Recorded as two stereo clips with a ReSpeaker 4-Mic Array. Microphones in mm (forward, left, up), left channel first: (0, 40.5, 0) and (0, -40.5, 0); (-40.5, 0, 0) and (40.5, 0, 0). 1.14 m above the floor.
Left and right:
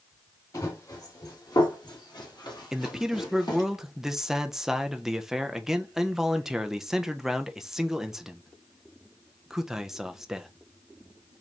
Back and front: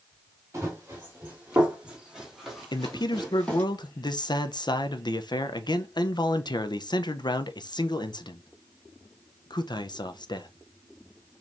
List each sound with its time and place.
0.5 s running footsteps: 55° left, 2.5 m; by 3.6 s 105° left, 2.5 m
2.7 s a man speaking: 175° right, 0.6 m